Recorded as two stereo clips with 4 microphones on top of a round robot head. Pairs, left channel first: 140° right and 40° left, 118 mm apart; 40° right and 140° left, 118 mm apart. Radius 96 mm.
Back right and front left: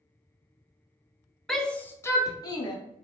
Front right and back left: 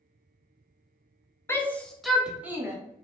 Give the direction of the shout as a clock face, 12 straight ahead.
2 o'clock.